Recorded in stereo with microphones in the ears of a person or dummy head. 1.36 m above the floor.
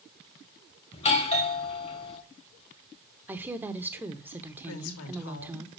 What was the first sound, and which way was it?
A doorbell, 30° left (ahead or behind).